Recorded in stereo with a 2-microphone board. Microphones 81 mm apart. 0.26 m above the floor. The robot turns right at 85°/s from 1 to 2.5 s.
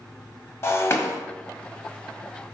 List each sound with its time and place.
0.6 s breaking glass: 35° left (ahead or behind), 0.9 m; by 1.2 s 40° left (ahead or behind), 0.9 m